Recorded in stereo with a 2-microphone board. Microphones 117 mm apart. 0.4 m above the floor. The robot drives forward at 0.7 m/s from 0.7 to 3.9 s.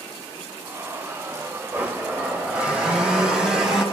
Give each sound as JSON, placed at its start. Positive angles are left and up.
{"t": 1.7, "sound": "a blender", "side_deg": -15, "distance_m": 1.5}